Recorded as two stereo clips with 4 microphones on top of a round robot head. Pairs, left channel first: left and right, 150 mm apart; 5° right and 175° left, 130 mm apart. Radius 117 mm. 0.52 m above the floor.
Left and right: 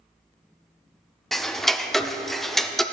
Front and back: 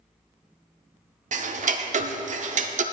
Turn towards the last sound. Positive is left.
turn(degrees=180)